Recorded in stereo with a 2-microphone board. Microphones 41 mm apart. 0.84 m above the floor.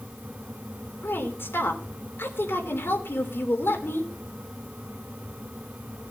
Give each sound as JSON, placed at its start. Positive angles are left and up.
{"t": 1.0, "sound": "a woman speaking", "side_deg": 75, "distance_m": 3.0}